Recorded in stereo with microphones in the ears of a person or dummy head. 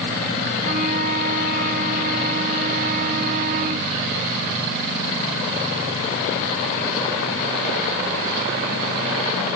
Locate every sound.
0.6 s a flute: 50° right (ahead or behind)